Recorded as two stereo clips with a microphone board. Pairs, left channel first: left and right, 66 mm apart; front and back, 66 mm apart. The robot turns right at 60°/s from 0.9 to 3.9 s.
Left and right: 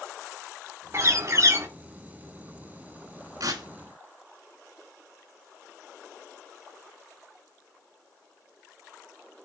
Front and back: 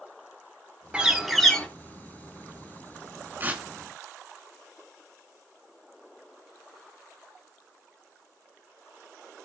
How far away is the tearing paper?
About 1.9 m.